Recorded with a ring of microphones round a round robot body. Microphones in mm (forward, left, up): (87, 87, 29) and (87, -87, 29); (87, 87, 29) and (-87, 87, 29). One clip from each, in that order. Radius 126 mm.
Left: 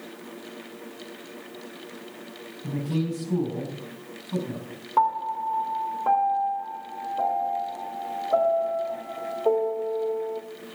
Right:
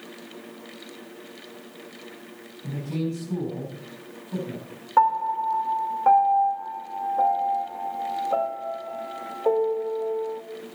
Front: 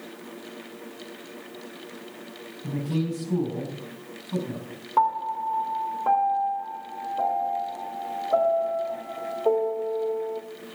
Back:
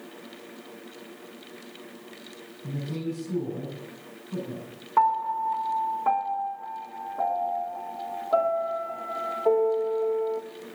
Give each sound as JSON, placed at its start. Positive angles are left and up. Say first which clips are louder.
{"t": 2.6, "sound": "a man speaking", "louder": "left 1 dB, front 4 dB", "azimuth_deg": 15, "distance_m": 5.0}
{"t": 5.0, "sound": "a piano", "louder": "right 3 dB, back 1 dB", "azimuth_deg": -120, "distance_m": 1.8}